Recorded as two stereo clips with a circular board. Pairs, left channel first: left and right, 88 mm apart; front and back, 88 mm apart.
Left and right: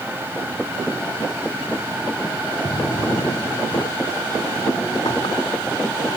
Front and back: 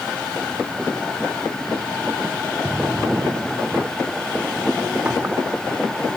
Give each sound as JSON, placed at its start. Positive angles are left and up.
{"t": 2.6, "sound": "a drawer", "azimuth_deg": 110}